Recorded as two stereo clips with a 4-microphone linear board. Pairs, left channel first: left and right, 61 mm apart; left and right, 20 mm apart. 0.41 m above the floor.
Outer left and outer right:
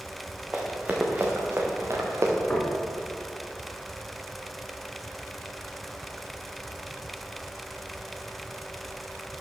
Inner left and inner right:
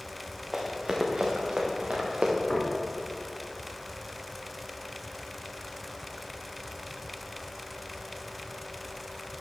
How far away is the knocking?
About 3.5 m.